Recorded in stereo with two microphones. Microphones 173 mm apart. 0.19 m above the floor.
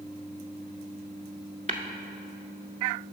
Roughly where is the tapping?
Right.